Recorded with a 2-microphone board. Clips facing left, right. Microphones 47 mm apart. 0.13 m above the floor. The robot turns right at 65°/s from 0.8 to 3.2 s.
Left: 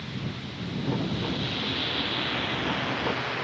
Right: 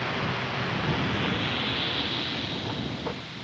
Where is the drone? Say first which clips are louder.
Right 7 dB; 75° right; by 3.5 s 80° left.